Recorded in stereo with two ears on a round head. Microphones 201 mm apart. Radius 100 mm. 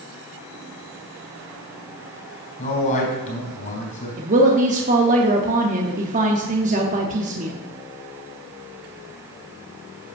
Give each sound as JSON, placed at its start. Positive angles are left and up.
{"t": 2.6, "sound": "a man speaking", "side_deg": 35, "distance_m": 3.5}
{"t": 4.2, "sound": "a woman speaking", "side_deg": -35, "distance_m": 0.8}